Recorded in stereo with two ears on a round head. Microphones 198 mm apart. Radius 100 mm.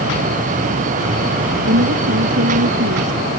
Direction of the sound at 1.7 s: 55° right (ahead or behind).